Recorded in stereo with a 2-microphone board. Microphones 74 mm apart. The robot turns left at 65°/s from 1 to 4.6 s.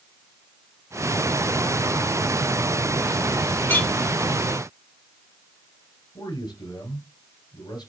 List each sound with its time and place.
3.7 s a clink: 30° left (ahead or behind), 1.2 m; by 3.9 s 20° left (ahead or behind), 1.2 m
6.2 s a man speaking: 65° left (ahead or behind), 3.5 m